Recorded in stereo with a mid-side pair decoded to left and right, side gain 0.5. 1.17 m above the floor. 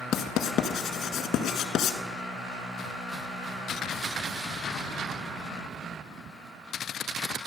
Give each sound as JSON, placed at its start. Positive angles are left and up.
{"t": 0.1, "sound": "writing", "azimuth_deg": 70, "distance_m": 1.5}